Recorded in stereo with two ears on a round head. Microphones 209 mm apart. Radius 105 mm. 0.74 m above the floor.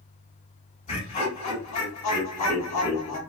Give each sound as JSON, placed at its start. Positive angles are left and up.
{"t": 0.9, "sound": "laughter", "side_deg": 30, "distance_m": 2.5}